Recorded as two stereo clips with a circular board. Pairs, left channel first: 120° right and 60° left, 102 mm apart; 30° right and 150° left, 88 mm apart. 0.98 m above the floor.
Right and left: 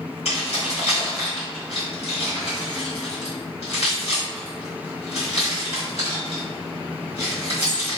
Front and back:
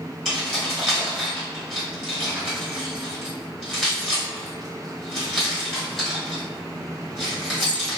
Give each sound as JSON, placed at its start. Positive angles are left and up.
{"t": 0.2, "sound": "keys jangling", "azimuth_deg": -120, "distance_m": 1.4}